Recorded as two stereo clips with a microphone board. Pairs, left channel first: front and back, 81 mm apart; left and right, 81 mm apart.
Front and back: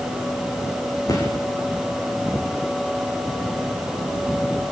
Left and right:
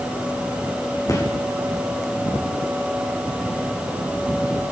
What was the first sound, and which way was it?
A gunshot, 45° left.